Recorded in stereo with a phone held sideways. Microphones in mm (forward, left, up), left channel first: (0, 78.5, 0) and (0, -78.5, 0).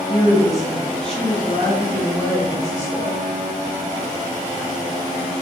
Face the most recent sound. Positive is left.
turn(degrees=15)  # may be behind; listen again after turning